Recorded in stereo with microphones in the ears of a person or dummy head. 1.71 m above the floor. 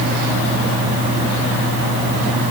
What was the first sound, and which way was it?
Only background noise.